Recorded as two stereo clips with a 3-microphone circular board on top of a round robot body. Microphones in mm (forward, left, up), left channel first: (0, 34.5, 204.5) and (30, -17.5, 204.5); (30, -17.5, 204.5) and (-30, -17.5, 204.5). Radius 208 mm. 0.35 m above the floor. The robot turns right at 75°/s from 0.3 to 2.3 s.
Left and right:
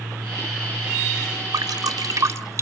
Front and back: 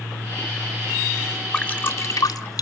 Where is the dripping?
80° right, 1.6 m; by 2.6 s 25° right, 1.6 m.